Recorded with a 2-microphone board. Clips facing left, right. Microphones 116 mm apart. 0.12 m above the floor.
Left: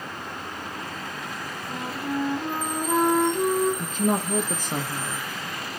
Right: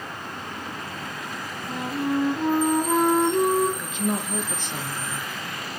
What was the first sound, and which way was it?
A flute, 25° right (ahead or behind).